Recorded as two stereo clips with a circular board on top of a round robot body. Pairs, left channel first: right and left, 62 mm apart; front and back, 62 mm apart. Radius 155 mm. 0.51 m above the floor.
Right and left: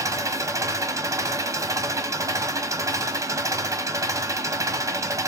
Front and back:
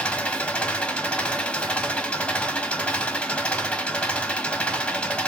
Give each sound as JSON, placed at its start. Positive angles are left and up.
{"t": 0.0, "sound": "an engine running", "azimuth_deg": 70, "distance_m": 1.4}